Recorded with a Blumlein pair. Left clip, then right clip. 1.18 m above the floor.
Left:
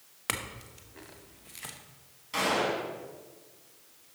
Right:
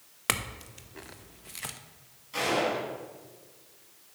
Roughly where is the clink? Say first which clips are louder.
Right 4 dB; ahead.